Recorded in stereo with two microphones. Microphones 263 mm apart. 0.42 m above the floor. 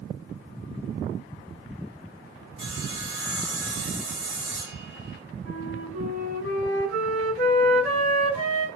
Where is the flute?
65° left (ahead or behind), 4 m.